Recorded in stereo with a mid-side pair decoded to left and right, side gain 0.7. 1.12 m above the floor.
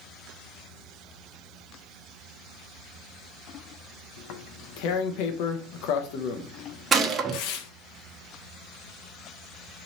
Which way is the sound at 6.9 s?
30° right.